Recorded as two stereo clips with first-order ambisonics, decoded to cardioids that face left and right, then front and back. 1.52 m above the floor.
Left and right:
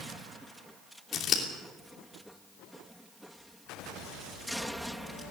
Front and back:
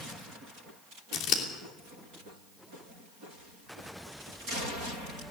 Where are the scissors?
35° left, 3 m.